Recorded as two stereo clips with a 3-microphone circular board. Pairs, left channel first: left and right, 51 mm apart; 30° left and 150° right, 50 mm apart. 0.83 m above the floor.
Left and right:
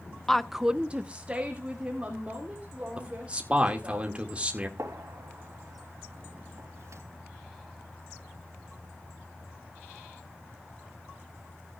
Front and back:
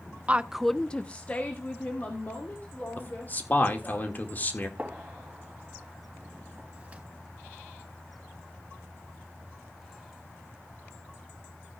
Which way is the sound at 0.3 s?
170° left.